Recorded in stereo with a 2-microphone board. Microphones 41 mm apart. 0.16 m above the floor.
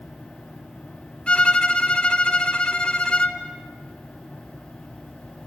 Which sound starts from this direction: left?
A violin, at 1.3 s.